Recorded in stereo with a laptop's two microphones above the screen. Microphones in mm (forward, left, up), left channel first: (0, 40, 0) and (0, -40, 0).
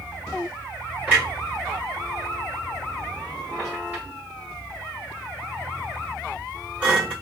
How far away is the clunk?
About 1.6 m.